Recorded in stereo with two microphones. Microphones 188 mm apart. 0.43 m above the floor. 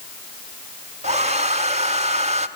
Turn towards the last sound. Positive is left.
turn(degrees=-40)  # may be behind; listen again after turning